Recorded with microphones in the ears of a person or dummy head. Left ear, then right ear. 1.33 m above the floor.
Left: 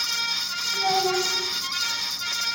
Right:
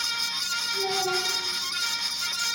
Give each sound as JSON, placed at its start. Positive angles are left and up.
{"t": 0.7, "sound": "a child speaking", "side_deg": 55, "distance_m": 7.0}